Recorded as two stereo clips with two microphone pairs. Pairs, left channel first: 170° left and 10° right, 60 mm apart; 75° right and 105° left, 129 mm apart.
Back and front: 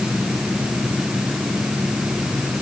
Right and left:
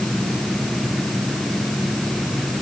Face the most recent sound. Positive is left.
No sound to turn to.